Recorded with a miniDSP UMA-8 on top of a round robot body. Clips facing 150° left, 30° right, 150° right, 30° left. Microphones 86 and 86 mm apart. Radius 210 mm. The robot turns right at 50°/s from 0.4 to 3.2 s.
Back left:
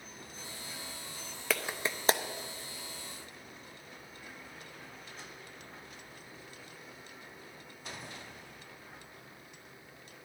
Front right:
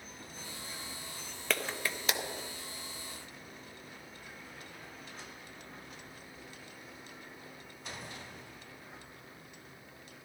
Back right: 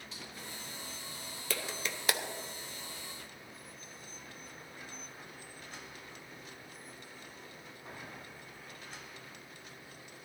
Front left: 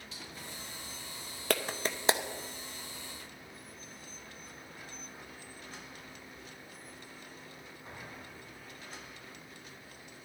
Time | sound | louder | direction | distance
1.5 | a clap | back left 1 dB, front left 7 dB | 65° left | 0.7 m